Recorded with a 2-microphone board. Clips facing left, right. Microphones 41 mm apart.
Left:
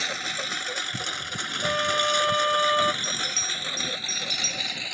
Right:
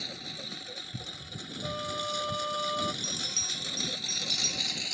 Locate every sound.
0.0 s a lawn mower: 80° left; by 5.0 s 30° left (ahead or behind)
1.6 s a flute: 70° left (ahead or behind)
3.0 s a bell: 10° right (ahead or behind)